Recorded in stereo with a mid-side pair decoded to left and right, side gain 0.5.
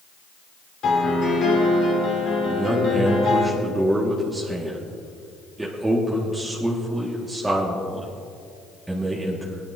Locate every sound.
0.8 s a piano: 60° left, 3 m
2.5 s a man speaking: 15° right, 1.8 m